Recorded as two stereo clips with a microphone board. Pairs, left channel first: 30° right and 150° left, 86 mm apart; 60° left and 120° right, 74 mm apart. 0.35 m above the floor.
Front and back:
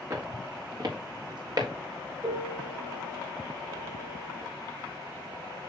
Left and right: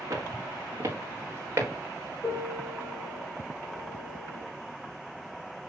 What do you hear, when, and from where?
0.1 s footsteps: 165° right, 3 m; by 1.7 s 175° right, 3.5 m
2.2 s a piano: 100° left, 4.5 m